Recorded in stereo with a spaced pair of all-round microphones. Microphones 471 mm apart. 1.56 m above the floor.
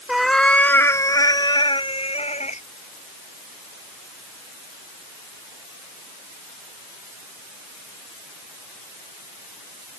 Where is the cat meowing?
Centre (ahead or behind); by 2.6 s 15° left (ahead or behind).